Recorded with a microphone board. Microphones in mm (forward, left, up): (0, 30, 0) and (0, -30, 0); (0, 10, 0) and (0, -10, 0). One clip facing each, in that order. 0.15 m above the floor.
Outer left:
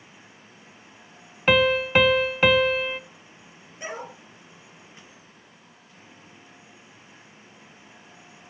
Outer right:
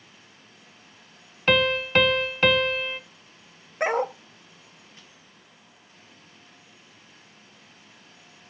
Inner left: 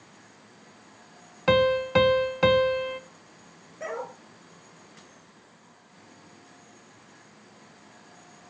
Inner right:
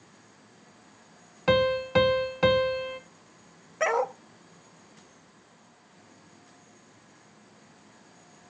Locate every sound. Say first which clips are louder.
1.5 s a piano: outer left 2 dB, inner left 2 dB; 10° left (ahead or behind), 0.7 m
3.8 s a dog barking: outer right 11 dB, inner right 9 dB; 60° right (ahead or behind), 1.0 m